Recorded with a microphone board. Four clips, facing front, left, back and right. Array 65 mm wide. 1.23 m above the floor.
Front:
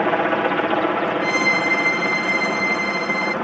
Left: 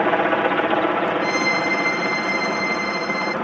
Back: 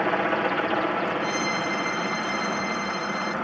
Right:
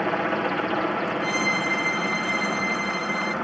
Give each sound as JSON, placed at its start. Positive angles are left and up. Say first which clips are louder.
{"t": 0.0, "sound": "a helicopter", "louder": "left 6 dB, front 5 dB", "azimuth_deg": 55}
{"t": 1.2, "sound": "a violin", "louder": "left 4 dB, front 7 dB", "azimuth_deg": 15}